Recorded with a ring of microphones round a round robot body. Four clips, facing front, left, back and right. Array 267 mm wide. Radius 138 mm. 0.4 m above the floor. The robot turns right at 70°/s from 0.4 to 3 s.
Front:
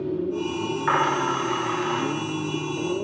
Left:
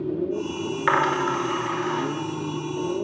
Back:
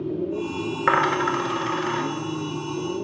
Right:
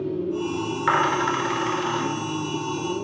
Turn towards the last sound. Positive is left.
turn(degrees=-45)